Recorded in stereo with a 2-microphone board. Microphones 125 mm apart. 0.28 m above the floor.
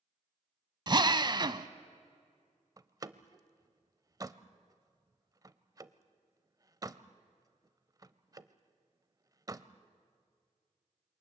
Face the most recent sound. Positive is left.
turn(degrees=-30)  # may be behind; listen again after turning